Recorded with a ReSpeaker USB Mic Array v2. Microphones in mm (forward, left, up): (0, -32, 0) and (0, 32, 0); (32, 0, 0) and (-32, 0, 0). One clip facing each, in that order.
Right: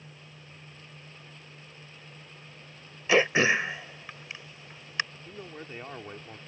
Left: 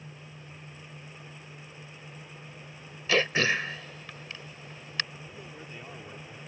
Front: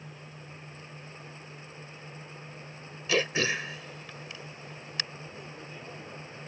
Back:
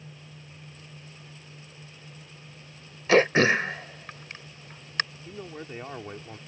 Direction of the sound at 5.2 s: 150° right.